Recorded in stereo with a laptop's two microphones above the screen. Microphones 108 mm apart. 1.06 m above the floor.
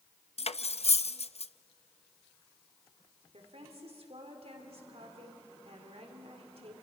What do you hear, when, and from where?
0.4 s cutlery clinking: 70° left (ahead or behind), 0.5 m
3.3 s a woman speaking: 70° right (ahead or behind), 3 m